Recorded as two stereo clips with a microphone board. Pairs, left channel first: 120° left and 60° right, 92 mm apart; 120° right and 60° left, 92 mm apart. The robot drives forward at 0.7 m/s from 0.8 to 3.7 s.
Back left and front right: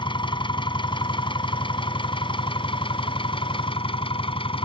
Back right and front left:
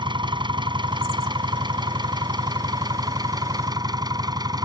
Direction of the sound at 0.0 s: 90° left.